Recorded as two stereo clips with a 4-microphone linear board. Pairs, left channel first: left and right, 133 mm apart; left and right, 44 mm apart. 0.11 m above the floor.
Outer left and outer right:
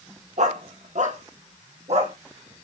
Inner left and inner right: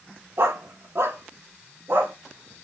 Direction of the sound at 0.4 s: 65° right (ahead or behind).